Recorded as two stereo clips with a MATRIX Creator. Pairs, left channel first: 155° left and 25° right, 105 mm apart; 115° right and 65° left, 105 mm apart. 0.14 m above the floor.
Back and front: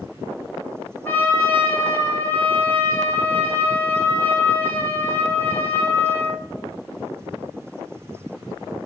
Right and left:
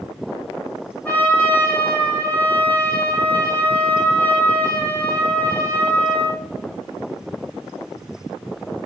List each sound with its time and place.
1.1 s a trumpet: 160° right, 0.8 m